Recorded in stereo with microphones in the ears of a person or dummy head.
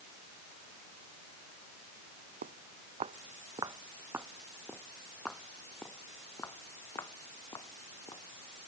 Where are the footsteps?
50° right (ahead or behind); by 8.7 s 25° left (ahead or behind).